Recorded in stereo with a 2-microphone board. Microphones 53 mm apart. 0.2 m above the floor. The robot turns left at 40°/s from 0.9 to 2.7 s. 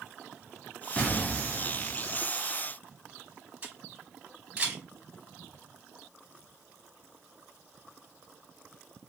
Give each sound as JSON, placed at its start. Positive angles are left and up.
{"t": 1.0, "sound": "an explosion", "azimuth_deg": 30, "distance_m": 1.9}
{"t": 3.6, "sound": "a camera shutter", "side_deg": -25, "distance_m": 2.5}